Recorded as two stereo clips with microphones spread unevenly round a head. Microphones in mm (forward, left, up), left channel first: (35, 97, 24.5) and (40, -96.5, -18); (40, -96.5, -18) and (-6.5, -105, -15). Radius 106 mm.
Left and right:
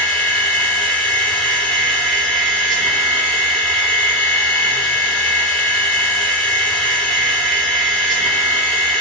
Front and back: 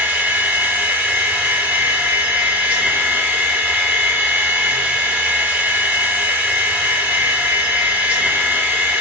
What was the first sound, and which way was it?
A machine running, 155° left.